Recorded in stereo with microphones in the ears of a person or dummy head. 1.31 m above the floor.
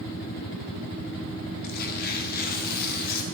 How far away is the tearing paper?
About 1.2 m.